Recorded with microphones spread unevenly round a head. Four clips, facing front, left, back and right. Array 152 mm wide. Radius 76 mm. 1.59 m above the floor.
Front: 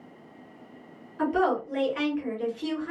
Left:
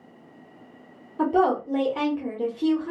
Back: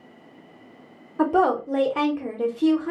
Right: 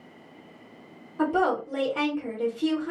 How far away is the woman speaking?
About 0.9 m.